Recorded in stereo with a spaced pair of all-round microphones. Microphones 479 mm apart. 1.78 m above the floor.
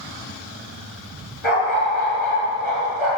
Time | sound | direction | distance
1.4 | a dog barking | 80° left | 8.5 m